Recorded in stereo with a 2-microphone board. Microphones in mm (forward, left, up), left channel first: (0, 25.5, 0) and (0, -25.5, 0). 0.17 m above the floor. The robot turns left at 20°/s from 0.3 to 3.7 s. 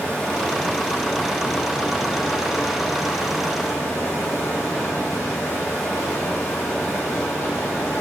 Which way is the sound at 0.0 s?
155° left.